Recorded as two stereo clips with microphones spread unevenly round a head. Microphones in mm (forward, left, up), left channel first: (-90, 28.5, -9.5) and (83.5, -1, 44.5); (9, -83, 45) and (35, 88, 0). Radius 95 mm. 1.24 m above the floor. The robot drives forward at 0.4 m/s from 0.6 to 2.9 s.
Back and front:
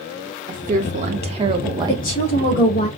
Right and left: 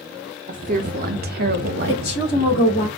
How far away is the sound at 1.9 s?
About 2.5 m.